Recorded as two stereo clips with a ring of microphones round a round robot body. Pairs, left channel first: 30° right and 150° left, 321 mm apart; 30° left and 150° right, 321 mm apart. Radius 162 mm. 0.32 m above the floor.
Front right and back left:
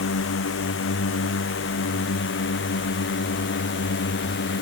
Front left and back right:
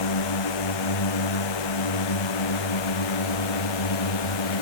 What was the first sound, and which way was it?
A drone, 25° left.